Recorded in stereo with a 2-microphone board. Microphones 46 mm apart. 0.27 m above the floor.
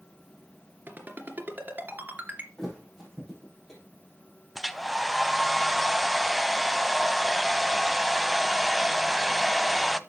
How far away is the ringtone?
About 2.5 m.